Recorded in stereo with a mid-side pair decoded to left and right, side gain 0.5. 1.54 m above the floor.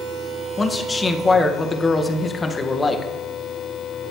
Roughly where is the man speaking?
Ahead left.